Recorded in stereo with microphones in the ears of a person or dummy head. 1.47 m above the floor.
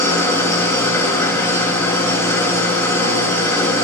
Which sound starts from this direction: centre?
An engine running, at 0.0 s.